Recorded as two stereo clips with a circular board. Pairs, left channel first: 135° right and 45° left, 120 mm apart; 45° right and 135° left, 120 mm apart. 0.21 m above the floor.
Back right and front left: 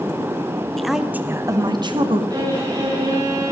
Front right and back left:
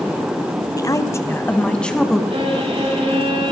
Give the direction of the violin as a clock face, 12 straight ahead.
9 o'clock.